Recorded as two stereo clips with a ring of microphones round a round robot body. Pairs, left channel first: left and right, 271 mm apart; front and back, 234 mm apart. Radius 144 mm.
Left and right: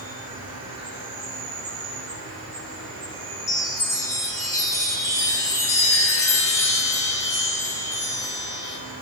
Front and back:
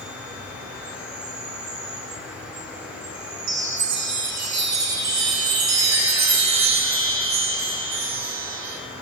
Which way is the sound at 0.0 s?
100° right.